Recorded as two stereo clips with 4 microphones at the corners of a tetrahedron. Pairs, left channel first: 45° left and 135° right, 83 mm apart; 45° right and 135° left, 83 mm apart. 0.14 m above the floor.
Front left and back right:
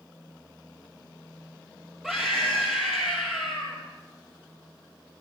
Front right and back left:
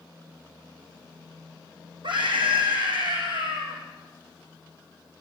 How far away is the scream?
About 4.5 m.